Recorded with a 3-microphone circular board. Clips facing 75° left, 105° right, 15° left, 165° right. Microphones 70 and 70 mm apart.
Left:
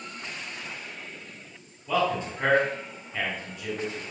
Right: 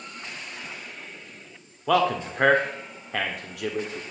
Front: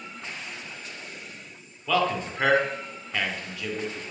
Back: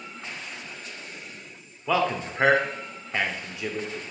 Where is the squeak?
I don't hear a squeak.